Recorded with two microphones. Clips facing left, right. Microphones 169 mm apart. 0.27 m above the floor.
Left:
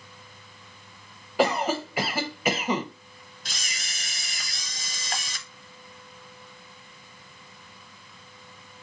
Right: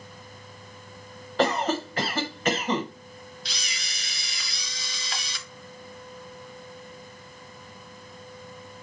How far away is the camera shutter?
About 0.6 m.